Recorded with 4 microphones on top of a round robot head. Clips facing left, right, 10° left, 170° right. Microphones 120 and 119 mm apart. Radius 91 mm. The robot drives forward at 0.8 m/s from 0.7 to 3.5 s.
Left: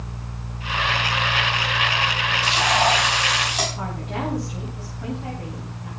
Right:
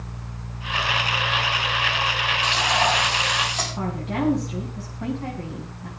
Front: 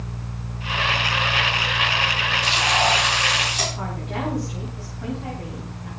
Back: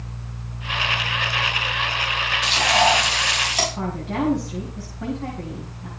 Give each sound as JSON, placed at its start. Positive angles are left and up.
{"t": 2.4, "sound": "frying", "azimuth_deg": 175, "distance_m": 5.0}
{"t": 3.8, "sound": "a woman speaking", "azimuth_deg": -125, "distance_m": 4.5}